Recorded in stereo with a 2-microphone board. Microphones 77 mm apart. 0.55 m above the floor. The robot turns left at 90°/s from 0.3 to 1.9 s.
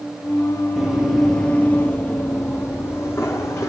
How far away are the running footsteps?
About 0.6 m.